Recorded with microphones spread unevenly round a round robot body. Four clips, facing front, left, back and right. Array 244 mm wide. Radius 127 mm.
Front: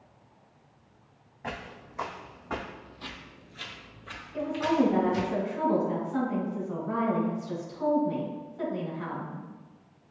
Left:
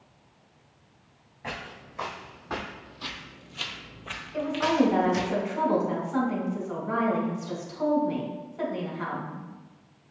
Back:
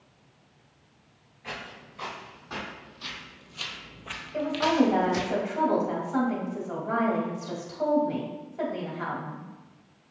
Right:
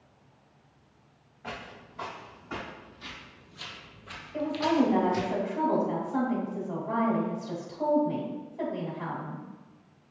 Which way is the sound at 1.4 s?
40° left.